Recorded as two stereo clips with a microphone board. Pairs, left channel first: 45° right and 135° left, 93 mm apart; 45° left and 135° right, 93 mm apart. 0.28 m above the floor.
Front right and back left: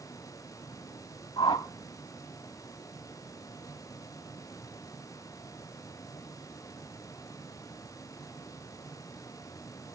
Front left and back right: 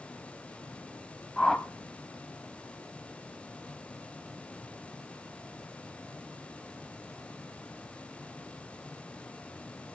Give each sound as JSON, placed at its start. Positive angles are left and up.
{"t": 1.4, "sound": "a whoosh", "azimuth_deg": -35, "distance_m": 0.5}